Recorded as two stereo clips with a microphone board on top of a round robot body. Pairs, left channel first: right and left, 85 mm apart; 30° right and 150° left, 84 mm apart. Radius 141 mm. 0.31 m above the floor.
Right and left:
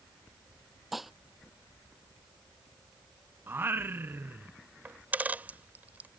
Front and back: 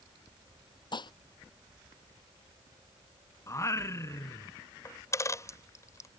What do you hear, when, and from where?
0.9 s dishes clattering: straight ahead
3.5 s singing: 25° left
4.8 s a dropped coin: 20° left